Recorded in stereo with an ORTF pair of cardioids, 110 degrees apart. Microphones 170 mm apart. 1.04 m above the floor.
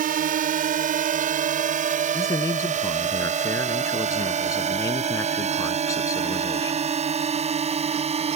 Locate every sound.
0.0 s a drone: 60° right; by 8.4 s 40° right
2.1 s a man speaking: 20° left